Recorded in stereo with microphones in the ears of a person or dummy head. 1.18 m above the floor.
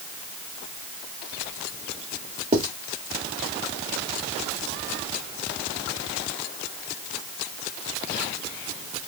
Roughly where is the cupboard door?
No cupboard door in this recording.